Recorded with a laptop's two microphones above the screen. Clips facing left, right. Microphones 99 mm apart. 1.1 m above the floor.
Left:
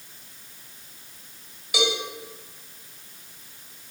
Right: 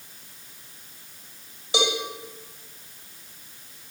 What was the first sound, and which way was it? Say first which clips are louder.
A cowbell: even; 30° right (ahead or behind).